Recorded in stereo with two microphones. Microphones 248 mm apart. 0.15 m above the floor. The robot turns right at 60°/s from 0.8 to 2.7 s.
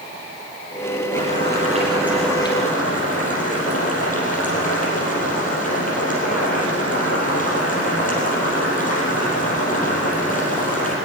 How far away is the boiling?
About 4.5 m.